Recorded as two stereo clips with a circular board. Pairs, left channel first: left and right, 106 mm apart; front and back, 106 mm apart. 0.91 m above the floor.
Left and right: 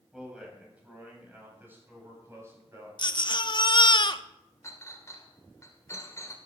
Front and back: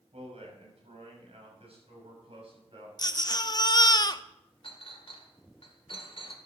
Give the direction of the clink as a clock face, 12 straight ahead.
11 o'clock.